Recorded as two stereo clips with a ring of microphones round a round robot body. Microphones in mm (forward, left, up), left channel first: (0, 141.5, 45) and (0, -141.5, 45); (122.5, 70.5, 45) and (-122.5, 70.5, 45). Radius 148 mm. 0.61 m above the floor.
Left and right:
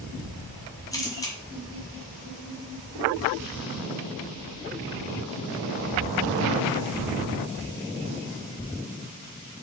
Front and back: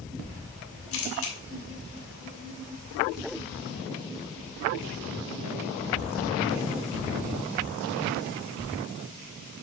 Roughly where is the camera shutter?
Ahead.